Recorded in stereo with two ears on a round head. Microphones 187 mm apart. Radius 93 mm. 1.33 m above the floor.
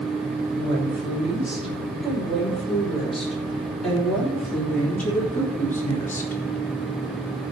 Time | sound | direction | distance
0.6 | a woman speaking | 5° right (ahead or behind) | 6 m